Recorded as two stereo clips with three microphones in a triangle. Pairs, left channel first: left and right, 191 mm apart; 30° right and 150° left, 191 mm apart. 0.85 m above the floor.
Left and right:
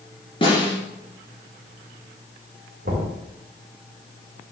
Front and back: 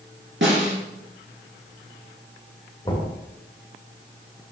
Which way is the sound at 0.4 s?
150° left.